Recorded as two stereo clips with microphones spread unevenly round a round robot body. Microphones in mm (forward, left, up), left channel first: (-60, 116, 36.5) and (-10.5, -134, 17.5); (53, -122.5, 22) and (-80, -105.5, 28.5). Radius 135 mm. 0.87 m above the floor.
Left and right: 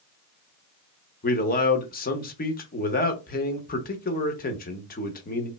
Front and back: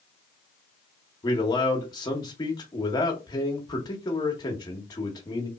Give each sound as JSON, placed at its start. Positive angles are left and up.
{"t": 1.2, "sound": "a man speaking", "azimuth_deg": 50, "distance_m": 0.9}